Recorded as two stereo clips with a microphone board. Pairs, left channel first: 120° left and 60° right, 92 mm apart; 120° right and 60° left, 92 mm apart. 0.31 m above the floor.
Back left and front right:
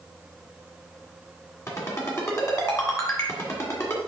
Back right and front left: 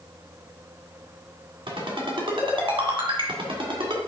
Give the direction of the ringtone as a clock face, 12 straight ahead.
10 o'clock.